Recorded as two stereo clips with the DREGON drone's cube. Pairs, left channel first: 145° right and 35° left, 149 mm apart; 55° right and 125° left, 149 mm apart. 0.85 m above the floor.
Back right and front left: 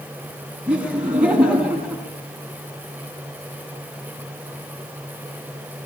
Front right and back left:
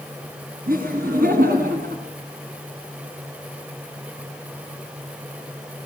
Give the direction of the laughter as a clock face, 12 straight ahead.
8 o'clock.